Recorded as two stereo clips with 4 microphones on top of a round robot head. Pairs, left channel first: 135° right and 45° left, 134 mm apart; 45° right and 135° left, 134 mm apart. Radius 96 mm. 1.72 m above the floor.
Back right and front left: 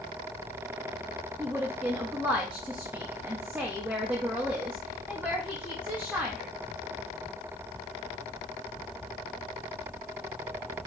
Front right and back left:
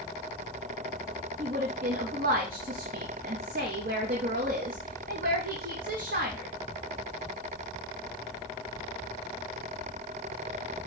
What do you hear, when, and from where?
1.4 s a woman speaking: 125° left, 0.7 m